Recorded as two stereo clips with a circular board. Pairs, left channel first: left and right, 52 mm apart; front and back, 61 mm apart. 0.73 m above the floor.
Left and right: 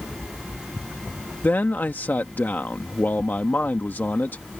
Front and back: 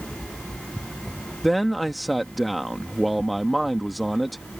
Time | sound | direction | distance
1.4 | a man speaking | 90° left | ?